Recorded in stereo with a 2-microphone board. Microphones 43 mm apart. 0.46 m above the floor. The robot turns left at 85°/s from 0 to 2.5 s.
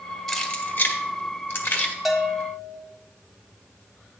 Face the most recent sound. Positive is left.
turn(degrees=145)